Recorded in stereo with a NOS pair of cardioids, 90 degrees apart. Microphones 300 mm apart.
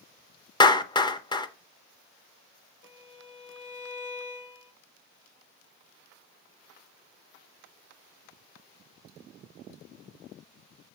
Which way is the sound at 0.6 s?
15° left.